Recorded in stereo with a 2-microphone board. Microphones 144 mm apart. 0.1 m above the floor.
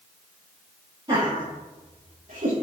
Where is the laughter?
30° right (ahead or behind), 2.5 m; by 2.5 s 65° right (ahead or behind), 3 m.